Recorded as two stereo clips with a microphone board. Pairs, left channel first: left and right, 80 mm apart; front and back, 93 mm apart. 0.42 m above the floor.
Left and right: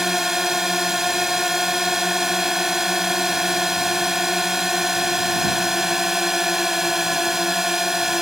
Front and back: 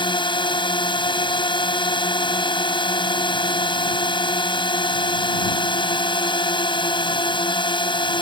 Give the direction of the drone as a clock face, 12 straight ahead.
12 o'clock.